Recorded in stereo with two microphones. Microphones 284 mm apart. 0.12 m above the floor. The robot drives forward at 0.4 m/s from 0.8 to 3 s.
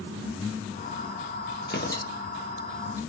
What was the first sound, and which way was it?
Tearing paper, 40° left (ahead or behind).